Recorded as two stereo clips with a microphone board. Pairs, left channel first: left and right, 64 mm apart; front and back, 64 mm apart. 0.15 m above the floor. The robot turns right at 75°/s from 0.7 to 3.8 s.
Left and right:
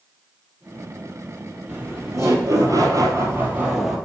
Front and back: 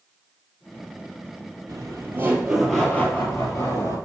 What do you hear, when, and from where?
1.7 s laughter: 165° right, 3 m; by 4.0 s 5° right, 3 m